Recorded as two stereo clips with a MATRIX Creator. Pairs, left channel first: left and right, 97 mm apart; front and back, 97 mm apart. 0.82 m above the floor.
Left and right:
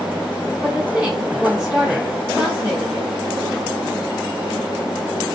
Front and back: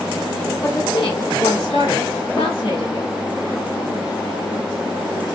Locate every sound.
0.6 s a woman speaking: 5° right, 1.8 m